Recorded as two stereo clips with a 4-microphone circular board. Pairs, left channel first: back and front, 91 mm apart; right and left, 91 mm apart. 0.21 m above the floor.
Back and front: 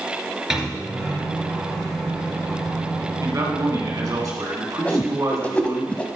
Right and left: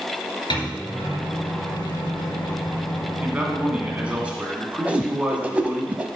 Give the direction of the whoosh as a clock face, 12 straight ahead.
8 o'clock.